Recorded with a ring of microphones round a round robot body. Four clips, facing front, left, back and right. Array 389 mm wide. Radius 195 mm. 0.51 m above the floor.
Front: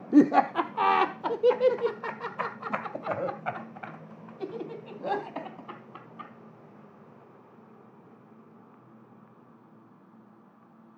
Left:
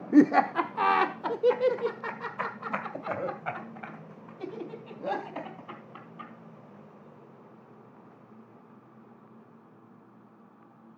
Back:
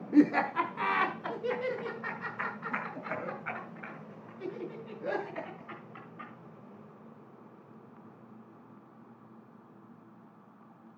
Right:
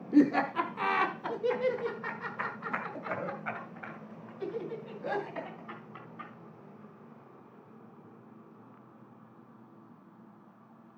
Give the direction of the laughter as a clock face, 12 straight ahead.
11 o'clock.